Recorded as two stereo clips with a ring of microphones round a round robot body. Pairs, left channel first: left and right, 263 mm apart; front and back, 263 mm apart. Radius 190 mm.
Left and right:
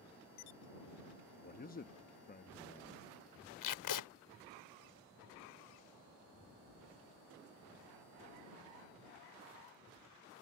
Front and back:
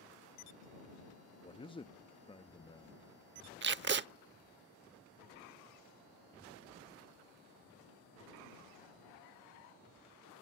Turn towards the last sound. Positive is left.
turn(degrees=130)